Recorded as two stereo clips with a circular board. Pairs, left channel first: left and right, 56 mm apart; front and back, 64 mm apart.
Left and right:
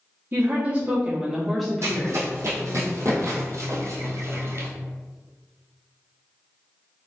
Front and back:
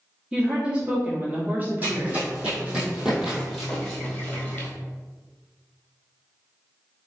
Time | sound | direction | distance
0.3 | a woman speaking | 110° right | 1.1 m
1.8 | running footsteps | 120° right | 1.8 m